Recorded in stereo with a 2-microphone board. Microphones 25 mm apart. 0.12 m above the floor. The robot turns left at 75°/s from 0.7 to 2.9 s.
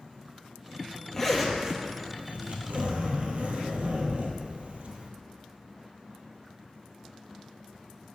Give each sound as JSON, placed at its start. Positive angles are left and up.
{"t": 1.1, "sound": "a zipper", "azimuth_deg": 15, "distance_m": 0.9}